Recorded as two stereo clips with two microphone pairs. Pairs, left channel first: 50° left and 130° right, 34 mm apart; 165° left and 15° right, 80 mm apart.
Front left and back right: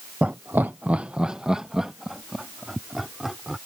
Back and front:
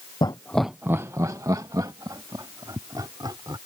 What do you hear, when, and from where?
0.2 s laughter: 175° right; by 3.6 s 50° right